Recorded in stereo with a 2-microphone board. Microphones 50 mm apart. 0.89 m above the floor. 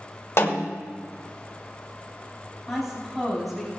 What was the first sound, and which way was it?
A snare drum, 55° left (ahead or behind).